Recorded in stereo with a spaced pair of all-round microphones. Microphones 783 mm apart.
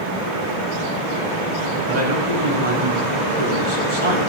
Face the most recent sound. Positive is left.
turn(degrees=-55)  # may be behind; listen again after turning